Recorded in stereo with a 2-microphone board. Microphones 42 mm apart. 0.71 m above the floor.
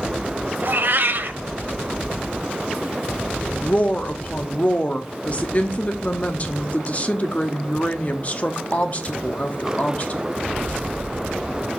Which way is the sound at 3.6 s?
35° left (ahead or behind).